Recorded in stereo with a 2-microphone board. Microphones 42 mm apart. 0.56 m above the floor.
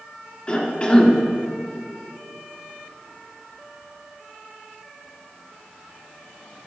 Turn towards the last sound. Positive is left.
turn(degrees=25)  # may be behind; listen again after turning